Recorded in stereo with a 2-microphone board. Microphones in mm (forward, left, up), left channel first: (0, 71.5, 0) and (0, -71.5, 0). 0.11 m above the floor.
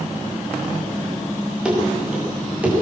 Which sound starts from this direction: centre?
Running footsteps, at 1.6 s.